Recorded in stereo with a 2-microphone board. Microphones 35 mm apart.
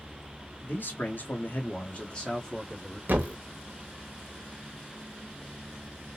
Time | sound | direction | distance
0.6 | a man speaking | 60° left (ahead or behind) | 1.4 m
3.1 | a thud | 65° right (ahead or behind) | 0.8 m